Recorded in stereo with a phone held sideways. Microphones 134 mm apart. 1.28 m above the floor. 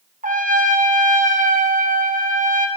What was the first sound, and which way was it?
A trumpet, 85° right.